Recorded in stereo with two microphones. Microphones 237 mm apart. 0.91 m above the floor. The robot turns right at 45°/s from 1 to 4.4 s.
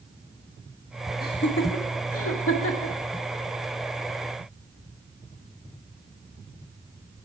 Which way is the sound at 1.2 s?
40° left (ahead or behind).